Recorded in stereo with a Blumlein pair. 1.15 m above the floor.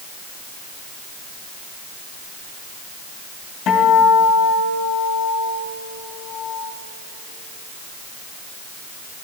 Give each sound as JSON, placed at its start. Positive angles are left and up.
{"t": 3.7, "sound": "a guitar", "azimuth_deg": 20, "distance_m": 3.0}